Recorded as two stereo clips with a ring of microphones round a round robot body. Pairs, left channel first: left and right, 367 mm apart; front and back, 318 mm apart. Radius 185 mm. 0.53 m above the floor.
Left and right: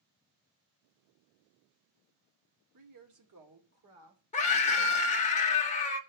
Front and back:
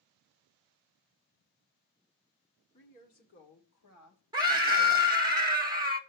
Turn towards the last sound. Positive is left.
turn(degrees=125)